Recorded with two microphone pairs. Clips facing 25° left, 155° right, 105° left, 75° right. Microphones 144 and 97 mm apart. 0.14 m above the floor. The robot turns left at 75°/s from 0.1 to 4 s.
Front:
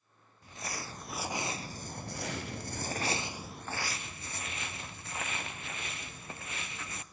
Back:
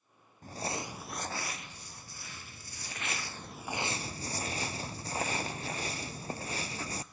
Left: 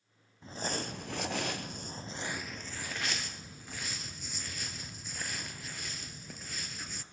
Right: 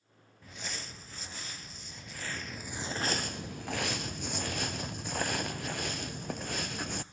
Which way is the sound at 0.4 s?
170° left.